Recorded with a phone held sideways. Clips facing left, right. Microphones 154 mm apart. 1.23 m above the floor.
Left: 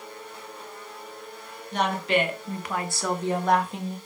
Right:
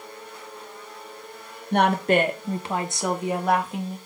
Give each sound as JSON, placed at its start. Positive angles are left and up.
{"t": 1.7, "sound": "a woman speaking", "side_deg": -60, "distance_m": 1.1}